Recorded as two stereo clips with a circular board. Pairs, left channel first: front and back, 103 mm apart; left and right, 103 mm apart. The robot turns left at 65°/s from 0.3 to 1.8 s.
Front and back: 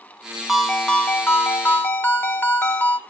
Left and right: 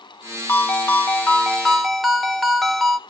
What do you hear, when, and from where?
0.5 s a ringtone: 90° left, 0.9 m; by 3.0 s 5° left, 0.9 m